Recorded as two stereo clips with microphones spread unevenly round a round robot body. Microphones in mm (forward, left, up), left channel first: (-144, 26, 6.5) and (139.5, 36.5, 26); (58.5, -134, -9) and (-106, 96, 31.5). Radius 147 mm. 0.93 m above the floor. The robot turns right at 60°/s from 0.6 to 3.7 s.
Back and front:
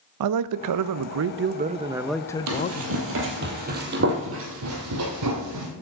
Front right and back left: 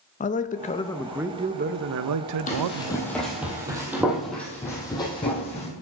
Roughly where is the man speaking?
Ahead.